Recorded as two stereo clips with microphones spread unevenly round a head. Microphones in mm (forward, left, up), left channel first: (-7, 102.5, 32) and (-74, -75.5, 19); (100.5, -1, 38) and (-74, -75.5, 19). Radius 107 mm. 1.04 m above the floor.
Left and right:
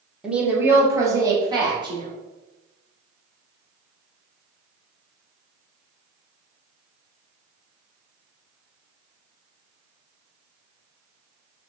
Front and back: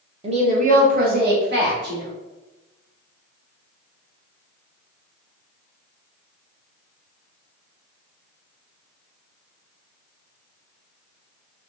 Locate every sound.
0.2 s a woman speaking: 170° left, 1.0 m; by 2.1 s 175° right, 1.8 m